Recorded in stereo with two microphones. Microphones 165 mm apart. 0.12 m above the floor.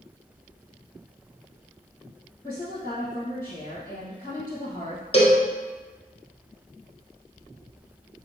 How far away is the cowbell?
About 0.8 m.